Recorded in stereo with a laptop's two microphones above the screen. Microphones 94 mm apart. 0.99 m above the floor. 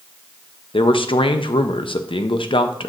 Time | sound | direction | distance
0.7 | a man speaking | 70° left (ahead or behind) | 0.6 m